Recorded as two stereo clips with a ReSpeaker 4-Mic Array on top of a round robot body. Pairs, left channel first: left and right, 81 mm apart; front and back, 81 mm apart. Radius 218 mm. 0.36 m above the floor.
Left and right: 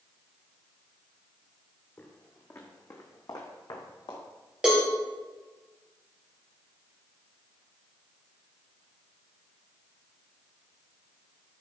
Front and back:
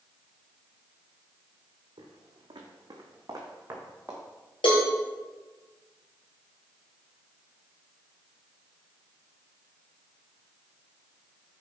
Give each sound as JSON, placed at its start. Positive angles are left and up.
{"t": 2.0, "sound": "footsteps", "azimuth_deg": 160, "distance_m": 1.6}
{"t": 4.6, "sound": "a cowbell", "azimuth_deg": -10, "distance_m": 3.0}